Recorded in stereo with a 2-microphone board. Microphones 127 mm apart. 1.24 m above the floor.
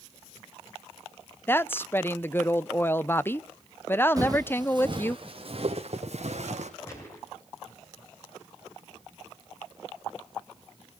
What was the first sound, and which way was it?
A woman speaking, 15° left (ahead or behind).